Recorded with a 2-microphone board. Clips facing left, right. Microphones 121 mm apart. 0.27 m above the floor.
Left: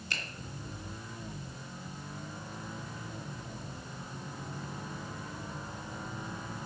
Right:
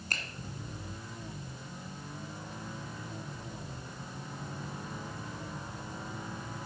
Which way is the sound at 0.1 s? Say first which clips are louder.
Right 1 dB; 50° right (ahead or behind).